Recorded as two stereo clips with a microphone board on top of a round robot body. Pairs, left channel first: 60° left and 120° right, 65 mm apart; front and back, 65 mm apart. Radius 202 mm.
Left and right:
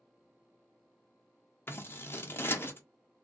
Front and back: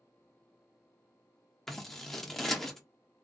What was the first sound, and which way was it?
Scissors, 85° left.